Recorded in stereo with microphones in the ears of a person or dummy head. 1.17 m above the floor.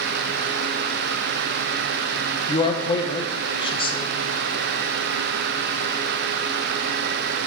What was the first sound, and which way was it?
A man speaking, 20° left (ahead or behind).